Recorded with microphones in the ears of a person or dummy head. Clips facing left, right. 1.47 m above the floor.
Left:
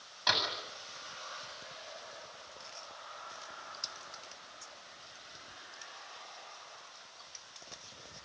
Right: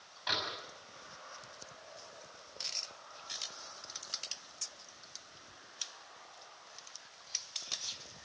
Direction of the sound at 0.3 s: 60° left (ahead or behind).